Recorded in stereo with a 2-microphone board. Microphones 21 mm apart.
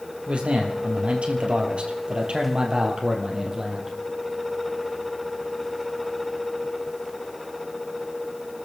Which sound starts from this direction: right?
A man speaking, at 0.3 s.